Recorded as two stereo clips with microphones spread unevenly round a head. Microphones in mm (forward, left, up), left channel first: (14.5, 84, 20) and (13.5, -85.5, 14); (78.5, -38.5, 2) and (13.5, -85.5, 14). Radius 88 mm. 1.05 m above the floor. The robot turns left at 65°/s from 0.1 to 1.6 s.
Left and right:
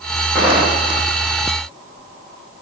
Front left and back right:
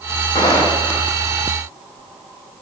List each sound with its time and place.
0.3 s footsteps: 5° right, 5 m; by 1.1 s 50° right, 5 m